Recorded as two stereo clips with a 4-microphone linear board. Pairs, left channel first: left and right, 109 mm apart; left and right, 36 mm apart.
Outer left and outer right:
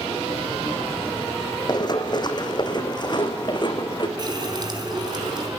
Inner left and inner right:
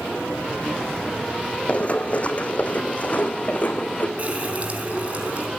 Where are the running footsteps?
40° left (ahead or behind), 2.5 m.